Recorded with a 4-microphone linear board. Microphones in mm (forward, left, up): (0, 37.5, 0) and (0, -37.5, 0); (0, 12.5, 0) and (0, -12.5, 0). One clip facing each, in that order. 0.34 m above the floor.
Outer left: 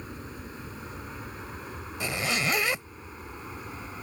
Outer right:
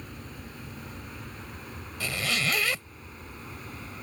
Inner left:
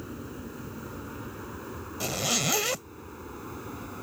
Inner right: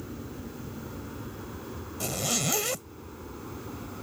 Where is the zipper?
20° left (ahead or behind).